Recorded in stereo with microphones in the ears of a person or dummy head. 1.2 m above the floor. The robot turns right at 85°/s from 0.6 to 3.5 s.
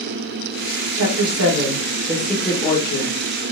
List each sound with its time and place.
0.9 s a woman speaking: 110° right, 1.1 m; by 3.1 s 75° left, 1.1 m